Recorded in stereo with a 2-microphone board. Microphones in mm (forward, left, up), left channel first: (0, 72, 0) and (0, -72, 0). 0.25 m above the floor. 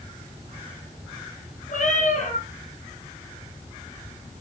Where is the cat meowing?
60° left (ahead or behind), 3.5 m.